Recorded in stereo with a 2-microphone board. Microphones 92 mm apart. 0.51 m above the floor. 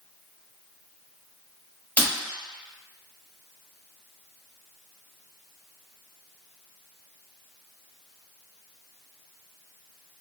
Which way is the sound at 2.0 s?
20° left (ahead or behind).